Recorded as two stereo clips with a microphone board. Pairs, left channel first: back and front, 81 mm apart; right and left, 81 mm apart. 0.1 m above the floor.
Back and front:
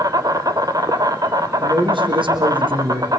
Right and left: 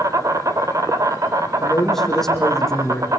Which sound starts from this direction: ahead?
A man speaking, at 1.6 s.